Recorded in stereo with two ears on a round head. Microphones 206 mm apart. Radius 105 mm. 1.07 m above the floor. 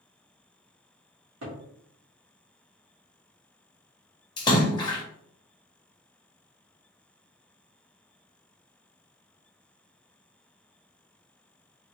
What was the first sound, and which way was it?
A cupboard door, 80° right.